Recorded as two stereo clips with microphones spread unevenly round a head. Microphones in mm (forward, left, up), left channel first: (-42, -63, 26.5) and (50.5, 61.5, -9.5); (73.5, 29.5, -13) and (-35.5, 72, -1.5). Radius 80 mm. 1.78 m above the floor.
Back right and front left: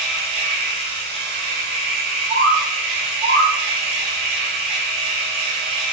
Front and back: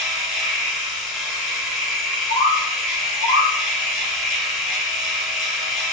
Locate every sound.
0.0 s a machine running: 75° left, 1.3 m
2.3 s a bird: 20° left, 1.4 m